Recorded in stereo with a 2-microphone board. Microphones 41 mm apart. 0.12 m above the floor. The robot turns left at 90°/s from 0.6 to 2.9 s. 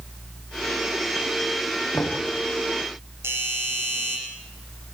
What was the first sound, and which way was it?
Knocking, 80° left.